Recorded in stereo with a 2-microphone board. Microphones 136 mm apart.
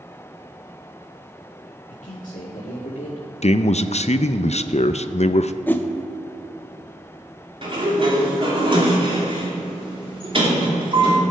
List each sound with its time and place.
1.9 s a man speaking: 75° left (ahead or behind), 1.9 m
3.4 s a man speaking: 55° left (ahead or behind), 0.5 m
5.7 s a whoosh: 15° left (ahead or behind), 0.7 m
7.6 s a sliding door: 40° right (ahead or behind), 2.5 m